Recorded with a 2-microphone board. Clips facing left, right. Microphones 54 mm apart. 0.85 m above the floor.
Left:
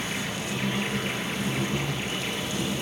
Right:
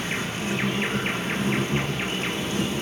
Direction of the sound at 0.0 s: 40° right (ahead or behind).